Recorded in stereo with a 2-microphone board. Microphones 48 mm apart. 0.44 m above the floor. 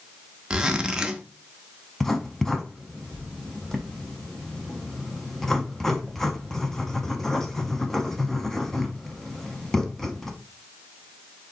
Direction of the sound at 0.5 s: 15° right (ahead or behind).